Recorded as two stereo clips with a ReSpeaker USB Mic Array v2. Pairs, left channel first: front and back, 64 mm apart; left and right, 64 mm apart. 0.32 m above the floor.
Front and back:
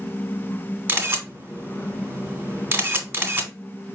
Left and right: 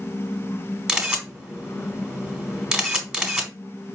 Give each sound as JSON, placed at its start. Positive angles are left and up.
{"t": 0.9, "sound": "a camera shutter", "azimuth_deg": -160, "distance_m": 1.3}